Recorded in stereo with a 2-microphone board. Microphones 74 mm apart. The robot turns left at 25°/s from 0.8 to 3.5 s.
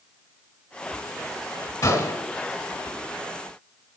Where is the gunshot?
50° left (ahead or behind), 2 m; by 2.3 s 40° left (ahead or behind), 2 m.